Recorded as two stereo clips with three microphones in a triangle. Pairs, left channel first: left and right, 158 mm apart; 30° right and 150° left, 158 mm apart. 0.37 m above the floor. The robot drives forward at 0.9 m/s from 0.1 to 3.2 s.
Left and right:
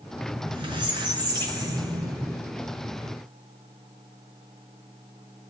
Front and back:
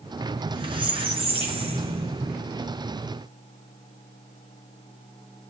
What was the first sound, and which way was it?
A squeak, 150° right.